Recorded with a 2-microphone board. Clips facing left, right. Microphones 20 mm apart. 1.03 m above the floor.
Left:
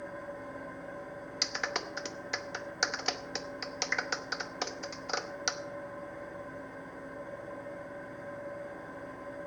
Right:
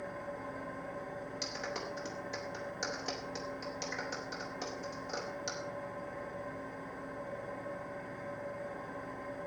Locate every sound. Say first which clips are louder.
0.0 s an engine running: even; 10° right (ahead or behind), 6.5 m
1.4 s a clap: left 8 dB; 45° left (ahead or behind), 0.8 m